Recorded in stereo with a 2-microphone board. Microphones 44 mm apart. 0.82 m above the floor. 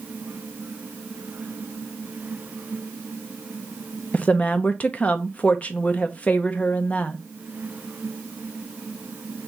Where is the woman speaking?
30° left (ahead or behind), 0.6 m.